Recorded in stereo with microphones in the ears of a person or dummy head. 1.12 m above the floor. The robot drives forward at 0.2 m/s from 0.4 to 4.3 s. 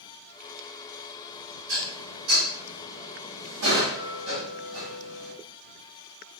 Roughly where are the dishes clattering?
Right.